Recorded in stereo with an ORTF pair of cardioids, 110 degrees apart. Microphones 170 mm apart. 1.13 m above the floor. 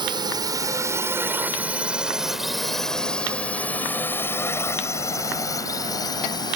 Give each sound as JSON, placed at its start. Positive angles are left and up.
{"t": 0.0, "sound": "a drone", "azimuth_deg": -30}